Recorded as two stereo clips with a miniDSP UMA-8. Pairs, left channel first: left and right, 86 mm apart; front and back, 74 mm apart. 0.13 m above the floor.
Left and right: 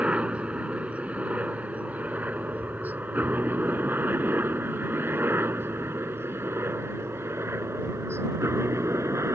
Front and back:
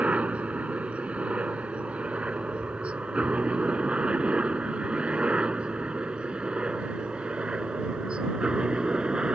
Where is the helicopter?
140° right; by 9.4 s 110° right.